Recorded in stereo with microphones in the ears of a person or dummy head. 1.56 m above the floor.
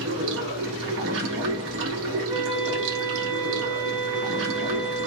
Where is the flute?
30° right (ahead or behind), 1.4 m.